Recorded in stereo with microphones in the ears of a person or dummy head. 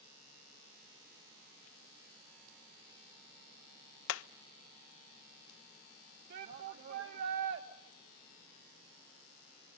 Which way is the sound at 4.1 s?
85° left.